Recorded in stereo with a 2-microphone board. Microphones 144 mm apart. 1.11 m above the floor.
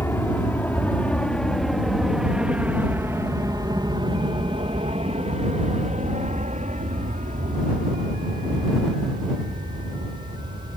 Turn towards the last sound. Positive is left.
turn(degrees=-55)  # may be behind; listen again after turning